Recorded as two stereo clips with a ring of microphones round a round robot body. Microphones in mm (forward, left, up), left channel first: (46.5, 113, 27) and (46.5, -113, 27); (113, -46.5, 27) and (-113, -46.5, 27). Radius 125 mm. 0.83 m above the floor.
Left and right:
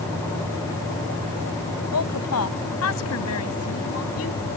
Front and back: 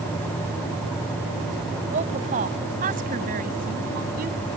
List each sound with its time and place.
1.9 s a woman speaking: 120° left; by 4.4 s 125° left